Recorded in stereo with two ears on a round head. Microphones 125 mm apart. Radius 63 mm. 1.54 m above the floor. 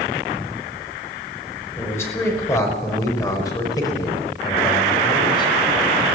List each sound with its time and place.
1.8 s a man speaking: 15° left (ahead or behind), 5 m; by 5.5 s 35° left (ahead or behind), 6 m